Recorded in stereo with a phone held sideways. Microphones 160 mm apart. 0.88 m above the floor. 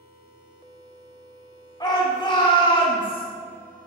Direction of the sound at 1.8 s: 30° left (ahead or behind).